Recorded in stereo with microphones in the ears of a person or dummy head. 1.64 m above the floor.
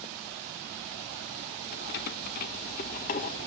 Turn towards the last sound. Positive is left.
turn(degrees=50)  # may be behind; listen again after turning